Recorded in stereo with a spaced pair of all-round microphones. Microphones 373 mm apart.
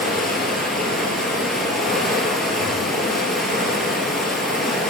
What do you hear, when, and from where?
0.0 s running water: centre (ahead or behind), 1.9 m